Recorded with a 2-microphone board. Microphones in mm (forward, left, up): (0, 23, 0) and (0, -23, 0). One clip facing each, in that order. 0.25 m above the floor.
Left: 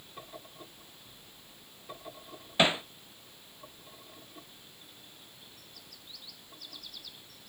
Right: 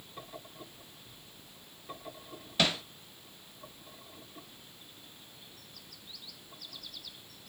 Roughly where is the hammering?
Centre.